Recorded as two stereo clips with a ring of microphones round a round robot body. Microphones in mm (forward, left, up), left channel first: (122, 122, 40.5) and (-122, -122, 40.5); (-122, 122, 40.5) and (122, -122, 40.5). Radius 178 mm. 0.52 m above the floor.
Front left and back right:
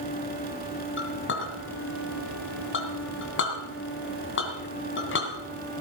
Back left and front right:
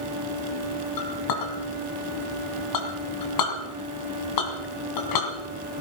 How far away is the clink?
About 3 m.